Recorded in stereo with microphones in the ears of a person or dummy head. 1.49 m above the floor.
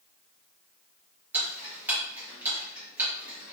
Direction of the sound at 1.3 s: 10° right (ahead or behind).